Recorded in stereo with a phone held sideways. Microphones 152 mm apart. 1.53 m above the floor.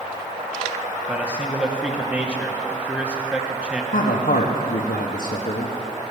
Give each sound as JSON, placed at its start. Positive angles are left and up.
{"t": 1.1, "sound": "a man speaking", "side_deg": -10, "distance_m": 1.1}
{"t": 3.9, "sound": "a man speaking", "side_deg": 80, "distance_m": 1.1}